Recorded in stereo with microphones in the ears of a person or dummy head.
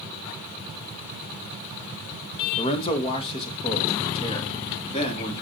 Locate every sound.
2.6 s a man speaking: 25° left (ahead or behind), 1.5 m; by 5.4 s 30° left (ahead or behind), 3.5 m